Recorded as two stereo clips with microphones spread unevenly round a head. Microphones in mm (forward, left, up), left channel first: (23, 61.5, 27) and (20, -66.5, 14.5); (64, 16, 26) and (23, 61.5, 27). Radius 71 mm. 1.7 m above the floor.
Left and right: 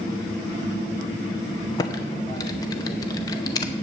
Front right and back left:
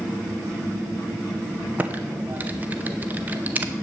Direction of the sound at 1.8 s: 100° left.